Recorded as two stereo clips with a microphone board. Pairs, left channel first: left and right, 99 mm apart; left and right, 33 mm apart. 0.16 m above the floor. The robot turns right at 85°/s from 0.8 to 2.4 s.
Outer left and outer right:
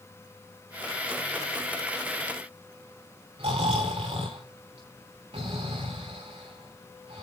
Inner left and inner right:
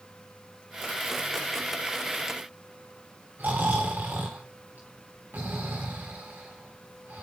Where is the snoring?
75° right (ahead or behind), 4 m.